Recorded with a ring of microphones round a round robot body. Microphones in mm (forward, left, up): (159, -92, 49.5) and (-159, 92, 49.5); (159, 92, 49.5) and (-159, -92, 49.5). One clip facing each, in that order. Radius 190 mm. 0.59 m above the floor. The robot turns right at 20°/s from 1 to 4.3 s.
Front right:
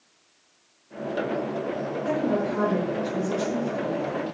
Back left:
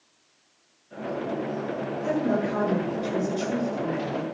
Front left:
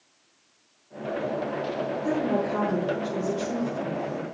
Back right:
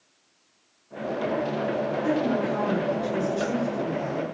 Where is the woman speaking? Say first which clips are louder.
Even, even; 125° left, 8.5 m; by 4.2 s 170° left, 8.5 m.